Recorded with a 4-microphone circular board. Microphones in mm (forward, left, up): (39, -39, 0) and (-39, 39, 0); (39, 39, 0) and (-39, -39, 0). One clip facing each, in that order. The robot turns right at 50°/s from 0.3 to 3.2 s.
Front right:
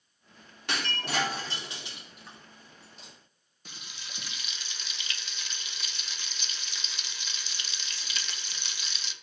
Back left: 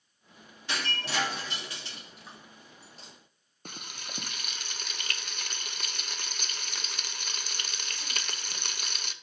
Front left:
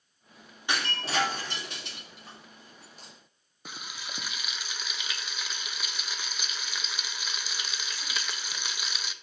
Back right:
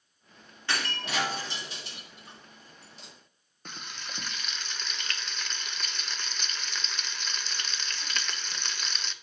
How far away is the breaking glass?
About 3 m.